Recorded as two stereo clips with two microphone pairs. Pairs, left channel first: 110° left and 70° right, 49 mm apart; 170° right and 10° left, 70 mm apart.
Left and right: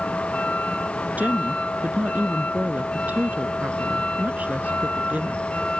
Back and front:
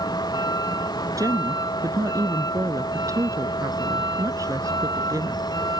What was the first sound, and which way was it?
A vehicle, 170° left.